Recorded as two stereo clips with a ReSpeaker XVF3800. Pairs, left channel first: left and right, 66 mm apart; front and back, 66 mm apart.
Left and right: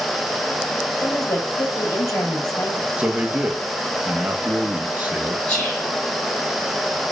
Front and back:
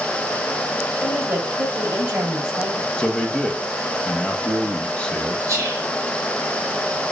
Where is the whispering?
155° left, 2 m.